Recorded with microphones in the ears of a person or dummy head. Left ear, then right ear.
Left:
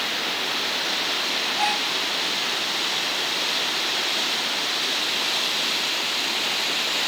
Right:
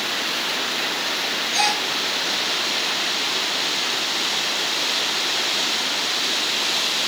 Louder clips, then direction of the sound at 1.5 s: Right 4 dB; 80° right.